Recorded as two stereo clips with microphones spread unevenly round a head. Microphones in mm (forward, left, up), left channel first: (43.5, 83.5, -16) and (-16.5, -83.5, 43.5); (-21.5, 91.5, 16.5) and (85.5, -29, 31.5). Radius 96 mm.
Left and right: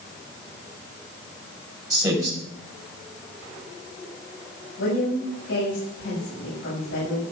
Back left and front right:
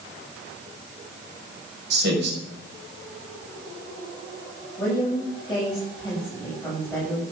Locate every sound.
1.9 s a man speaking: 40° right, 5 m
4.8 s a woman speaking: 50° left, 7 m